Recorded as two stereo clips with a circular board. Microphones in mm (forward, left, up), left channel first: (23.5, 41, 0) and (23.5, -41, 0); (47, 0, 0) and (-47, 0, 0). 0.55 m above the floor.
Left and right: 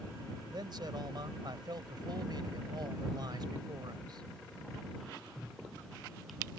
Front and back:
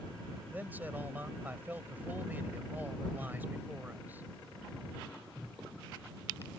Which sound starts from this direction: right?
A man speaking, at 0.5 s.